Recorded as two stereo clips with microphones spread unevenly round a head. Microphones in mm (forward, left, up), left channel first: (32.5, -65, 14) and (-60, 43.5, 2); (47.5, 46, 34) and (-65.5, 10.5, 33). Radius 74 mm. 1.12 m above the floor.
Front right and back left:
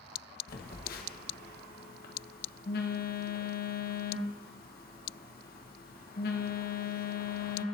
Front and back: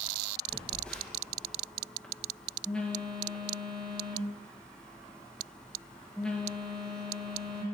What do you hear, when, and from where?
0.5 s a phone buzzing: 65° right, 1.2 m